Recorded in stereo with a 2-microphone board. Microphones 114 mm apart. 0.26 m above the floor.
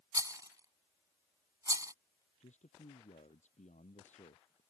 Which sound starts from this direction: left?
A man speaking, at 2.4 s.